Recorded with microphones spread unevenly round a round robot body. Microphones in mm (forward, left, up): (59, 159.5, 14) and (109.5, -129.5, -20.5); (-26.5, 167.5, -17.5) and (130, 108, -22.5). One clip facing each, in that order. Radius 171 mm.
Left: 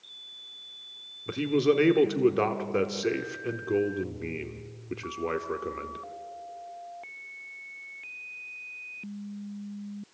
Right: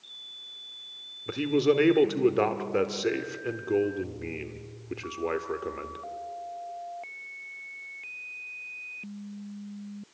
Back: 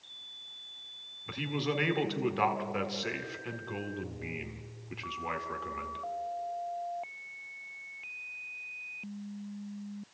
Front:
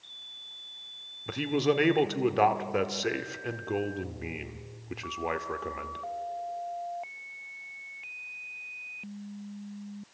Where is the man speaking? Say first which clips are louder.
Even, front 7 dB; 10° left, 1.4 m.